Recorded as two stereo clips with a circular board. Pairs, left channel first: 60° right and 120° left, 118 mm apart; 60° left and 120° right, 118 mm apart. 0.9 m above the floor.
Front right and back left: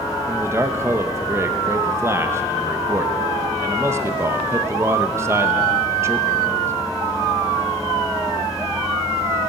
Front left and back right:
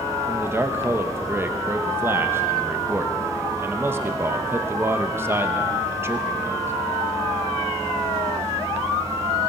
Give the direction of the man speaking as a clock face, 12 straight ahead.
6 o'clock.